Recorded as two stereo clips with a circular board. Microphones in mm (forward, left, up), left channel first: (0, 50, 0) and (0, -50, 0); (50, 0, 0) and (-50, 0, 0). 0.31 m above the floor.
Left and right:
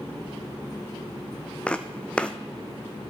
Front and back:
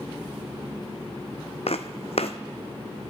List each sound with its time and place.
1.7 s footsteps: 10° left, 0.9 m